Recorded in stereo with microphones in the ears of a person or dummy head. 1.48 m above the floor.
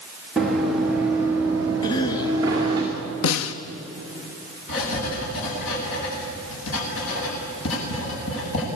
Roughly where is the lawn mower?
I don't hear a lawn mower.